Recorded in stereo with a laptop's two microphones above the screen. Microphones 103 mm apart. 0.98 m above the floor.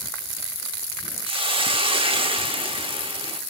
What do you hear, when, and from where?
1.2 s a hiss: 55° right (ahead or behind), 0.9 m